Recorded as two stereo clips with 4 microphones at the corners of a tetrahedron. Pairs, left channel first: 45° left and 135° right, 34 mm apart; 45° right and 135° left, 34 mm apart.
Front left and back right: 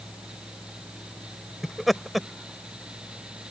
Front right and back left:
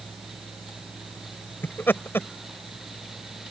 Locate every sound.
1.6 s laughter: 45° right